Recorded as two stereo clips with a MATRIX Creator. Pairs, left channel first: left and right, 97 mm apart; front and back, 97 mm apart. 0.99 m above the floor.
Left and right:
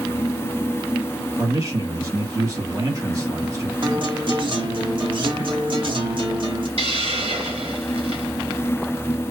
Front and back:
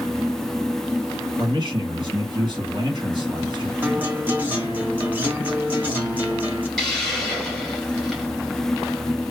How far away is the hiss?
About 1.8 m.